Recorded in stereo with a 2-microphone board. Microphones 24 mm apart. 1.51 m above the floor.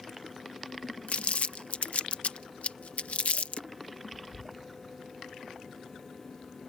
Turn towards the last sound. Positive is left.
turn(degrees=75)  # may be behind; listen again after turning